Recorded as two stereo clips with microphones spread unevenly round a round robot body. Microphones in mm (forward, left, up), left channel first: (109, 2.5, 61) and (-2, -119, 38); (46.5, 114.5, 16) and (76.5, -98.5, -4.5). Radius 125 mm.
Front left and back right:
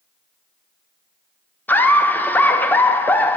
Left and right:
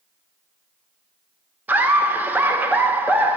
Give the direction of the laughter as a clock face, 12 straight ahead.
1 o'clock.